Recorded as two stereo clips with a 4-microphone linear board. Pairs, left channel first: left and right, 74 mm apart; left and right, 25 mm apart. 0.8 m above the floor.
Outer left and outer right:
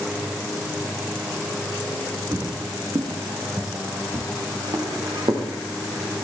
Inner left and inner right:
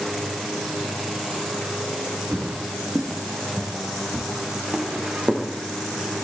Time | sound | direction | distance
2.3 | footsteps | 40° right (ahead or behind) | 4.5 m